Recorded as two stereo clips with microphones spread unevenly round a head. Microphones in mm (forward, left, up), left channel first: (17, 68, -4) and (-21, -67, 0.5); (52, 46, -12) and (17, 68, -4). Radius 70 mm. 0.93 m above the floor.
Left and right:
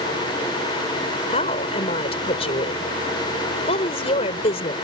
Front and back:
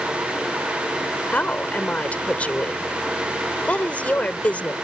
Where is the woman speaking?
25° left.